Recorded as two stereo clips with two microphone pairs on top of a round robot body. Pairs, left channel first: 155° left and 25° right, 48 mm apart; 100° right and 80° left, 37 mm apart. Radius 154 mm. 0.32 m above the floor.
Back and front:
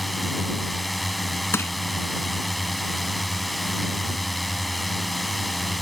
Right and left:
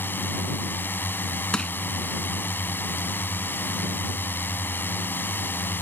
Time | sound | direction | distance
0.0 | a drone | 115° right | ?
1.5 | crushing | 175° right | ?